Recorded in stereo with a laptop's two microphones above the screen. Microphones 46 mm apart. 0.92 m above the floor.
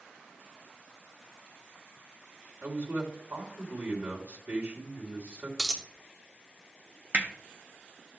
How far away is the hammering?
About 0.8 m.